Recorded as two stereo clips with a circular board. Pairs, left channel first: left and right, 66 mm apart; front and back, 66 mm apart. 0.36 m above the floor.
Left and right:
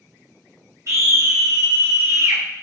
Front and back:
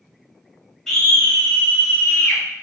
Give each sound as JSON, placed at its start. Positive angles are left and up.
{"t": 0.9, "sound": "a scream", "azimuth_deg": -80, "distance_m": 1.4}